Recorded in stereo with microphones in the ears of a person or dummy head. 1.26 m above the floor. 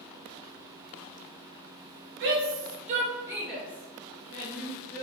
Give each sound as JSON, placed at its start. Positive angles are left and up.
{"t": 2.2, "sound": "a shout", "side_deg": -55, "distance_m": 0.9}